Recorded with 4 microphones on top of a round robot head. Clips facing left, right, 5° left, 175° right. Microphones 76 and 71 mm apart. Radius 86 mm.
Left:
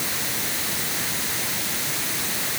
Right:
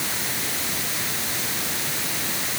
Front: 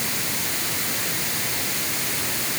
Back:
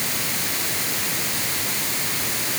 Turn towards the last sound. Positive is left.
No sound to turn to.